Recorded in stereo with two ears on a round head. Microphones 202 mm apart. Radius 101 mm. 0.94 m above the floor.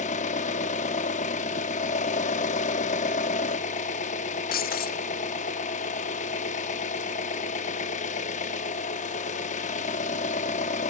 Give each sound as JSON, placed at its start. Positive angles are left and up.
{"t": 0.0, "sound": "an engine running", "side_deg": 35, "distance_m": 0.8}
{"t": 4.5, "sound": "breaking glass", "side_deg": 40, "distance_m": 0.7}